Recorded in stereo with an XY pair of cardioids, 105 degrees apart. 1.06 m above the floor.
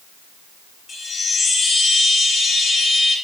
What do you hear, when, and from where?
0.9 s a chime: 35° left, 0.6 m